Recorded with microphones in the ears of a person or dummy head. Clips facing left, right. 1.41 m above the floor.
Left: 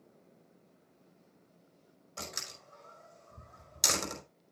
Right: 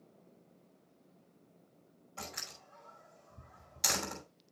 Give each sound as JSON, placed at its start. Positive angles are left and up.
{"t": 2.2, "sound": "a door slam", "side_deg": 80, "distance_m": 5.0}